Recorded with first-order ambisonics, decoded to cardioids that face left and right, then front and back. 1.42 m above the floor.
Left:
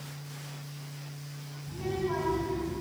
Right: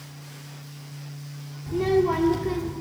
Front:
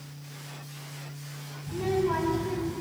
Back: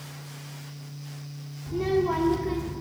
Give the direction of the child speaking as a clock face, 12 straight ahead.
4 o'clock.